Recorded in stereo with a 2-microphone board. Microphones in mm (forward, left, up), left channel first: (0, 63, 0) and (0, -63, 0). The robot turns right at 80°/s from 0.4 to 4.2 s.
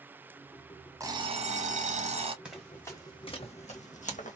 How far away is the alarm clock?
About 0.9 m.